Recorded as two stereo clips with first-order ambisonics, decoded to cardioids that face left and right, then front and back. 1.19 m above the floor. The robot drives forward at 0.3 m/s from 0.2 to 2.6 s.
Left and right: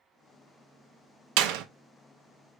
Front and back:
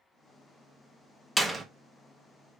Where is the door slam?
90° right, 0.5 m; by 1.6 s 100° right, 0.6 m.